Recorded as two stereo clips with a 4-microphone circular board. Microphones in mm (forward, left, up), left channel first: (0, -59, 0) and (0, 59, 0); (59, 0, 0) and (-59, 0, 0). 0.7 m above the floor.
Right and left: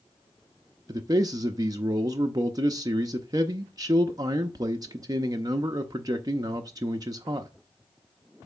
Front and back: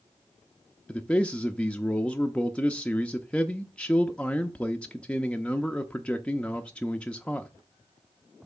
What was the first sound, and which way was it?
A man speaking, 70° left.